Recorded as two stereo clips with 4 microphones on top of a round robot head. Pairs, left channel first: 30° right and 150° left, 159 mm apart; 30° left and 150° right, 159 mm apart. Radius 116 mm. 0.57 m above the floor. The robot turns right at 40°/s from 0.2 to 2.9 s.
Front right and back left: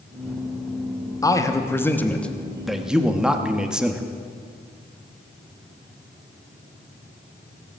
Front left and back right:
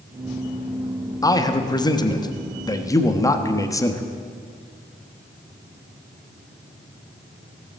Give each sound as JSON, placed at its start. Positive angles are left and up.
{"t": 1.2, "sound": "a man speaking", "azimuth_deg": 0, "distance_m": 1.0}